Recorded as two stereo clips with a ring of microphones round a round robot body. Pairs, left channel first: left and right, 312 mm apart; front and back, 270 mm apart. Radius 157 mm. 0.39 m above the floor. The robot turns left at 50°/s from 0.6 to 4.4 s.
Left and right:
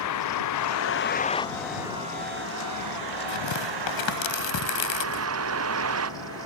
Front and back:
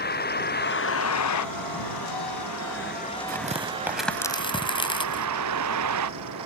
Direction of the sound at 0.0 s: 55° left.